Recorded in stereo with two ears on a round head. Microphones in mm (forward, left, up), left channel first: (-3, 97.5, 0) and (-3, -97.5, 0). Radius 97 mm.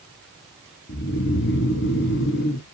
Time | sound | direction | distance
0.9 | snoring | 55° left (ahead or behind) | 1.4 m